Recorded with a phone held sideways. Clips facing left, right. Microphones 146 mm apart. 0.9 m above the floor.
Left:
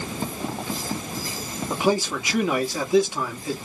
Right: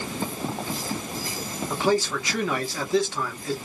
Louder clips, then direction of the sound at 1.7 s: Left 1 dB; 15° left (ahead or behind).